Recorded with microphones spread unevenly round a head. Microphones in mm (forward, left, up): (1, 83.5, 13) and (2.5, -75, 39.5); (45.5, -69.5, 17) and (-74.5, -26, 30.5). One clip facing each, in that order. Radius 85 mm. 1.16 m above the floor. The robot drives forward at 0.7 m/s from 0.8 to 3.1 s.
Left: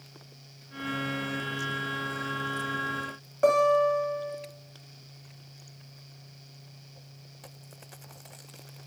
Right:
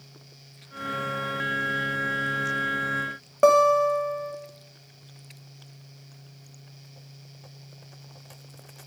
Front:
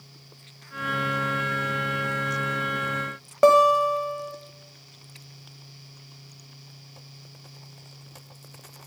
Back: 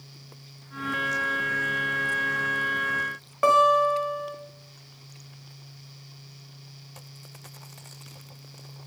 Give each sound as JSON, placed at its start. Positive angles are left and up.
{"t": 3.4, "sound": "a guitar", "azimuth_deg": -65, "distance_m": 1.1}